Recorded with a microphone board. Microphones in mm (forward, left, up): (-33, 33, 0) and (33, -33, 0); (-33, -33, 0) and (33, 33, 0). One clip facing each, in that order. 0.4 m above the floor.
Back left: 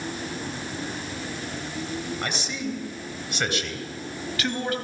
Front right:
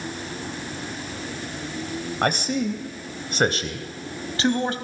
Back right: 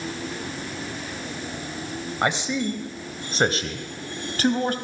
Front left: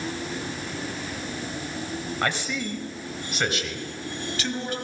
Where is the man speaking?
65° right, 2.5 m; by 4.8 s 105° right, 3 m.